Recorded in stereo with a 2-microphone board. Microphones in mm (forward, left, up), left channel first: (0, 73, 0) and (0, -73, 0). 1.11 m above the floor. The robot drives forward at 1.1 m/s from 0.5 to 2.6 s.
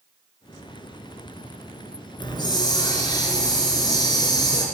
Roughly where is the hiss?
Left.